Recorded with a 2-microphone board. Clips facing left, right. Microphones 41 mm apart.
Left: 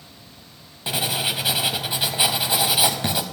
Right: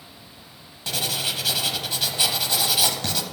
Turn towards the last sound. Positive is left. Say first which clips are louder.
# left 3 dB
turn(degrees=20)  # may be behind; listen again after turning